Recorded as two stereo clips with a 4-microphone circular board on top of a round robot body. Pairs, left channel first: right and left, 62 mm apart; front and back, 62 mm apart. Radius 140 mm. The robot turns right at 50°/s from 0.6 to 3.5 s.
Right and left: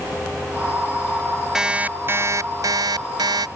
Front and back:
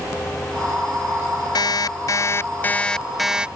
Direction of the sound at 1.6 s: 10° left.